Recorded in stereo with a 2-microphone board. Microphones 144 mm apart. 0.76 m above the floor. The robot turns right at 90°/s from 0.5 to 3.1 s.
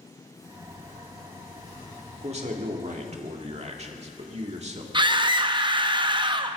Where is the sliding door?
20° left, 7.5 m; by 2.4 s 165° right, 7.5 m.